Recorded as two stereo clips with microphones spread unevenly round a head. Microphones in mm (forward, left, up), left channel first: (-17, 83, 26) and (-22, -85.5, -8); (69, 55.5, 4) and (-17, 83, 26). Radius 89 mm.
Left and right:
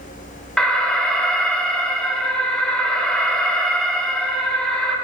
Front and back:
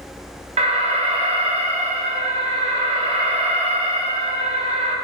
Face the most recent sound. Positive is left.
turn(degrees=175)